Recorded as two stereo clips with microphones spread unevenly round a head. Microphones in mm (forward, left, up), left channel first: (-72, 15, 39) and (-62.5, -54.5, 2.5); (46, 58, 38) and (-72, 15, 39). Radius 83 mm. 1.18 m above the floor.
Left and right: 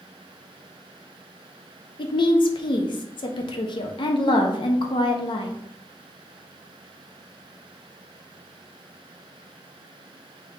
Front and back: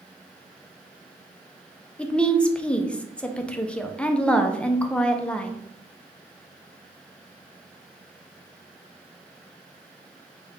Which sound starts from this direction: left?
A woman speaking, at 2.0 s.